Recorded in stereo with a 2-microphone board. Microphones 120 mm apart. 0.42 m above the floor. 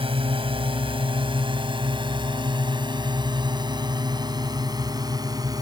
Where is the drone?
55° right (ahead or behind); by 5.6 s 35° right (ahead or behind).